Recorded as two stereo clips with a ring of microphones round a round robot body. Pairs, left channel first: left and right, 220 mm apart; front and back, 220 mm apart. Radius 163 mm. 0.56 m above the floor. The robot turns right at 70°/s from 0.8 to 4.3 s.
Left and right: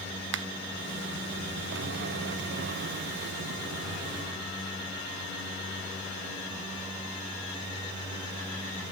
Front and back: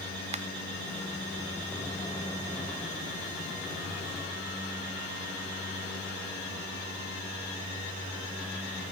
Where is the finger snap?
120° right, 1.2 m.